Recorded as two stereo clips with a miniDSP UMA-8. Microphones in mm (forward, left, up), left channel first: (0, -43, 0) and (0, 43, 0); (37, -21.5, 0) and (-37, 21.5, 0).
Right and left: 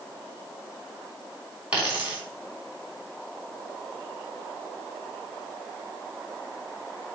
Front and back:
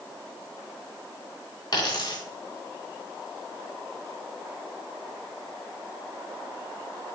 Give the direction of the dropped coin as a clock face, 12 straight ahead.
12 o'clock.